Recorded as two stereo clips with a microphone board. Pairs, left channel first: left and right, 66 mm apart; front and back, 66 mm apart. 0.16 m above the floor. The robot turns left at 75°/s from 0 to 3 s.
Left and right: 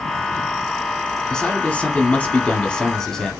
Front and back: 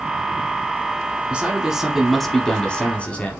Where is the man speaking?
150° left, 1.0 m; by 3.3 s 20° left, 1.0 m.